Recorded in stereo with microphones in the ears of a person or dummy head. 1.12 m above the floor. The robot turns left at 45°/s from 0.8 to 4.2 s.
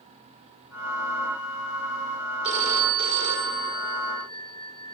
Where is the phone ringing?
35° right, 3 m; by 5.0 s 115° right, 3 m.